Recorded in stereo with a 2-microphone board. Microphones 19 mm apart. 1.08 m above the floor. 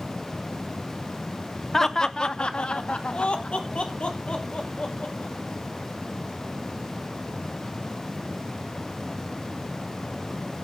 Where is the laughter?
20° left (ahead or behind), 0.8 m; by 5.3 s 60° left (ahead or behind), 3 m.